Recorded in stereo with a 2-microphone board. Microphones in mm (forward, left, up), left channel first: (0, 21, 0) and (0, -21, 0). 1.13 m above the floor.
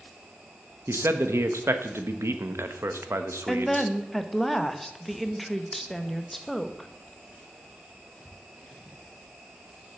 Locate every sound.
0.9 s a man speaking: 90° right, 1.0 m
3.5 s a woman speaking: centre (ahead or behind), 0.9 m